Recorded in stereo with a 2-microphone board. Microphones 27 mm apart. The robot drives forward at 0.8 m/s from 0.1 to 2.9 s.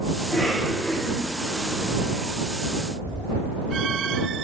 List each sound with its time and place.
0.2 s a cough: 45° left (ahead or behind), 1.5 m; by 2.3 s 50° left (ahead or behind), 1.3 m